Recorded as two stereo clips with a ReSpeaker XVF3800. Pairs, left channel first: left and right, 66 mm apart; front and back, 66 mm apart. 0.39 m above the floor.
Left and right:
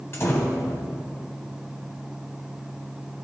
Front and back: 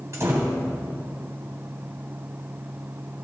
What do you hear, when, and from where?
0.1 s a door slam: 140° left, 1.7 m